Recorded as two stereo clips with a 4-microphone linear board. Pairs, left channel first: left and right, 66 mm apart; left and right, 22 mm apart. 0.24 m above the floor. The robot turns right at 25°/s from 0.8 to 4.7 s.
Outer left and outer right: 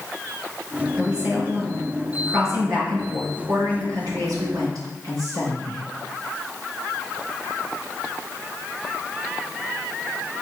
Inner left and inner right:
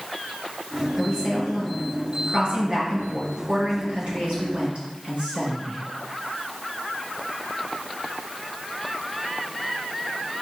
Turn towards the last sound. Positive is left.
turn(degrees=-75)